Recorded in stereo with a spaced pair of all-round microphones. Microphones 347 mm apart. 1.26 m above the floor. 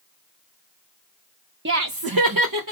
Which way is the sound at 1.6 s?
30° right (ahead or behind).